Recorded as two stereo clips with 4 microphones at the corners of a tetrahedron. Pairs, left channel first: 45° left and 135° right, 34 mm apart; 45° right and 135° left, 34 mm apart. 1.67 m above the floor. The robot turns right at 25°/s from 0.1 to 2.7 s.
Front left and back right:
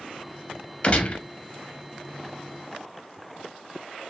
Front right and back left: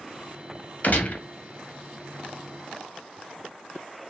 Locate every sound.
0.8 s a gunshot: 10° right, 0.8 m; by 1.2 s straight ahead, 0.8 m